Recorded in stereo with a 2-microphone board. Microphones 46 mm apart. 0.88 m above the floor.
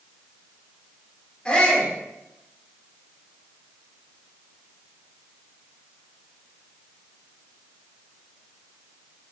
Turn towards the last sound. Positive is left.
turn(degrees=20)  # may be behind; listen again after turning